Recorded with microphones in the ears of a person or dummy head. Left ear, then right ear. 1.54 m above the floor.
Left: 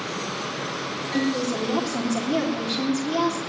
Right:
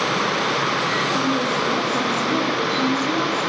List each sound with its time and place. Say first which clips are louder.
1.1 s a woman speaking: right 5 dB; 55° left (ahead or behind), 3.5 m